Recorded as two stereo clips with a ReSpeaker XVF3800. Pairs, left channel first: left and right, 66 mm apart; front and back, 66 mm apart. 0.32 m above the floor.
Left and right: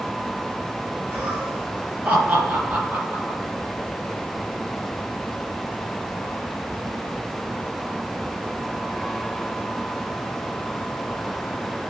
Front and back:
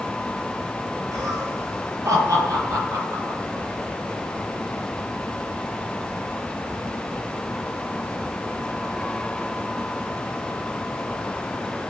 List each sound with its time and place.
1.1 s laughter: 150° right, 8 m